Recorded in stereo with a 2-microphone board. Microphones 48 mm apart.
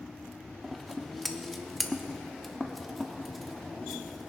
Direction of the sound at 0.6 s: Centre (ahead or behind).